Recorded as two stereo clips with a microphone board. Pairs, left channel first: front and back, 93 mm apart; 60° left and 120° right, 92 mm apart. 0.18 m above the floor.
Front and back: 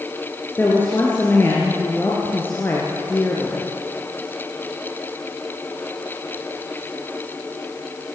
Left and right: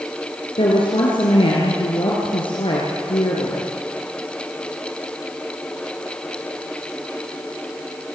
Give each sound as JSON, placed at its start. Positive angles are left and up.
{"t": 0.6, "sound": "a woman speaking", "azimuth_deg": 65, "distance_m": 3.5}